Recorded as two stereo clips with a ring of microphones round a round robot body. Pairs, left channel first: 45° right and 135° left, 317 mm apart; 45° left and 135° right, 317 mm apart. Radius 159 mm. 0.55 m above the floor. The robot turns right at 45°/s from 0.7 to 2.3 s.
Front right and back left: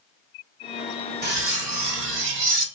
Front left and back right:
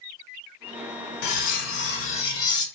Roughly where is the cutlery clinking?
Left.